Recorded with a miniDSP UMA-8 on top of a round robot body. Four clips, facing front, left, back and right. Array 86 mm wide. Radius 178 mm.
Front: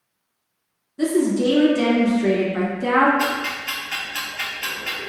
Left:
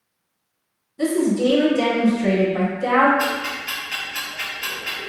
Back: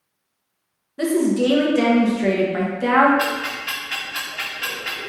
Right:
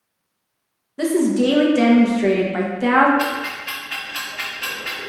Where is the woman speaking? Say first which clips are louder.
Right 2 dB, back 1 dB; 125° right, 1.1 m.